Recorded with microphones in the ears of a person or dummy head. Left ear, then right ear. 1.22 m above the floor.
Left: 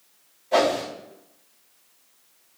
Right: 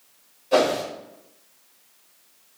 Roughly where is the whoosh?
Right.